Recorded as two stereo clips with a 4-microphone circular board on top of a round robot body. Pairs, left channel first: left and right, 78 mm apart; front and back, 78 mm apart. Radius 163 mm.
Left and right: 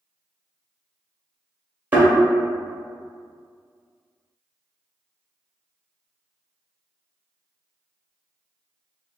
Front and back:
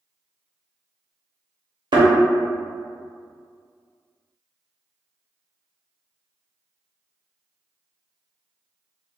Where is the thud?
160° right, 0.8 m.